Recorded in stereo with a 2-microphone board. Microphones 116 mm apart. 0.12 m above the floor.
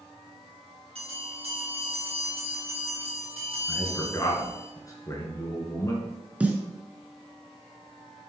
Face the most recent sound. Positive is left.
turn(degrees=-10)  # may be behind; listen again after turning